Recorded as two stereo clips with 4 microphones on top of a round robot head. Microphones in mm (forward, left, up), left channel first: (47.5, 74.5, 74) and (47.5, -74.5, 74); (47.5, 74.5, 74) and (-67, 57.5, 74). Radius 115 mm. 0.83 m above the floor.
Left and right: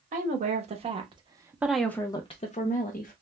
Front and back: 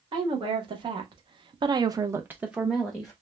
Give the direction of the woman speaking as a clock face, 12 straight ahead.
4 o'clock.